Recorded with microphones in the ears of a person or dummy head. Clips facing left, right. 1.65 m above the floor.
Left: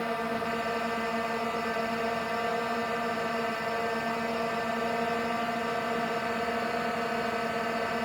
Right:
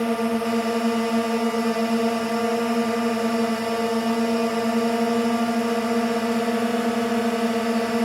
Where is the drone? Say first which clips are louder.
Right 9 dB; 50° right (ahead or behind).